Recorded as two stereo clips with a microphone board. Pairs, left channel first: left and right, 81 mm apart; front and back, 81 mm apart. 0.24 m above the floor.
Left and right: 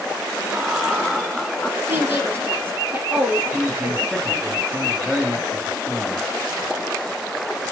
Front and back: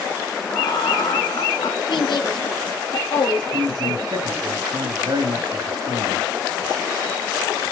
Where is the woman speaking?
25° right, 4.5 m.